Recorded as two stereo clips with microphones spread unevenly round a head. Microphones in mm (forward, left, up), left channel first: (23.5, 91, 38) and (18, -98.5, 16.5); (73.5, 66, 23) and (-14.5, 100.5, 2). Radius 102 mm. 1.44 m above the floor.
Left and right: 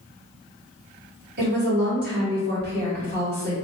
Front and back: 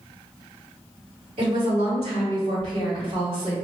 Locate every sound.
1.4 s a woman speaking: 140° right, 1.4 m